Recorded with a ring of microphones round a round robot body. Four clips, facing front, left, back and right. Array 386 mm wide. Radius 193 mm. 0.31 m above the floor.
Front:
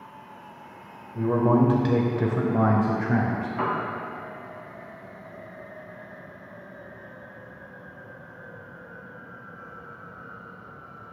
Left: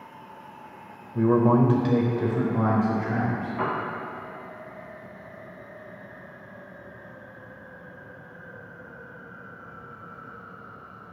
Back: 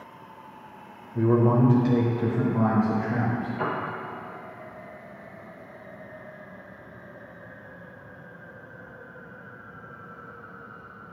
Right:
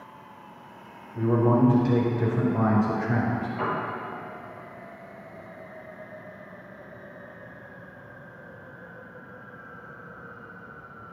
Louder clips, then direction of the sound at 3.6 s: Left 2 dB, front 4 dB; 20° left.